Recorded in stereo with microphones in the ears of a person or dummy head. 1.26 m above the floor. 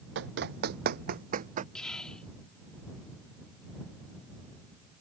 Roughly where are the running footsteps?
Right.